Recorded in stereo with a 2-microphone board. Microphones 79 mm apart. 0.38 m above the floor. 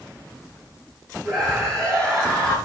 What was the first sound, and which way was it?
A scream, 5° left (ahead or behind).